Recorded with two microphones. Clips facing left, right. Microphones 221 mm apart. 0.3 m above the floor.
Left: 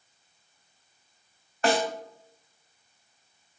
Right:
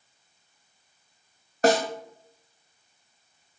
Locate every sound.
1.6 s a snare drum: 35° right (ahead or behind), 0.5 m